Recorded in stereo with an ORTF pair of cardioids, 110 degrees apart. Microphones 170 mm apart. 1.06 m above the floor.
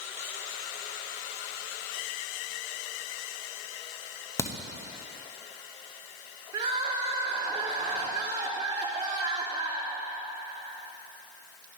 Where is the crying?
45° right, 3.5 m.